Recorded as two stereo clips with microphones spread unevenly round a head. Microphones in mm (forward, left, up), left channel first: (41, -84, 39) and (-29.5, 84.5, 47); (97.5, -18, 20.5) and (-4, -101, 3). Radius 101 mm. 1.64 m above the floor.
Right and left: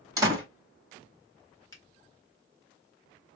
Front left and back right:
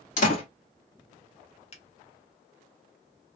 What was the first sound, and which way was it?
A door slam, 40° left.